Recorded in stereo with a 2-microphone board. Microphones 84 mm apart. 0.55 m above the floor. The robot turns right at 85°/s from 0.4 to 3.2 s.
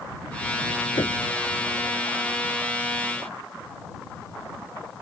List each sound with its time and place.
1.0 s knocking: 75° left (ahead or behind); by 1.2 s 55° left (ahead or behind)